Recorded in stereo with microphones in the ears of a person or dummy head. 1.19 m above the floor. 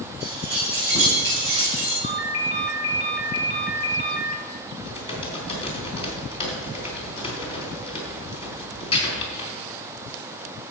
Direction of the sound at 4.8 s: 30° left (ahead or behind).